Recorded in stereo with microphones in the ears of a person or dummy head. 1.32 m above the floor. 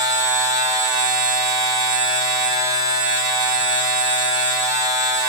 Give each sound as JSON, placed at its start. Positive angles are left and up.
{"t": 0.0, "sound": "a machine running", "side_deg": -20, "distance_m": 8.0}